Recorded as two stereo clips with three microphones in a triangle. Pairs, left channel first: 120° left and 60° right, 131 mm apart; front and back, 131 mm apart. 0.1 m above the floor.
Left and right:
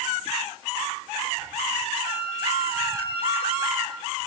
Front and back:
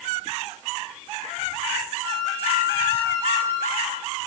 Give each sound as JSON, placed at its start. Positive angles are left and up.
{"t": 2.0, "sound": "a flute", "azimuth_deg": 140, "distance_m": 3.0}